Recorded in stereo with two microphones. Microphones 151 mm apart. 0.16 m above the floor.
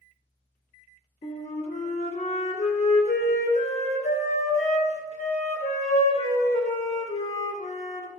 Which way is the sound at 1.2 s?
45° left (ahead or behind).